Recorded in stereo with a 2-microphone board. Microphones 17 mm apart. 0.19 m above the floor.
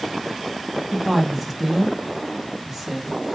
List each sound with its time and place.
0.9 s a woman speaking: 20° right (ahead or behind), 1.0 m